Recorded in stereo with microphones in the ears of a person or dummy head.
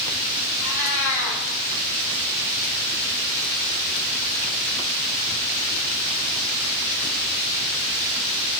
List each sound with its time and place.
0.6 s a cat meowing: 65° left (ahead or behind), 4.5 m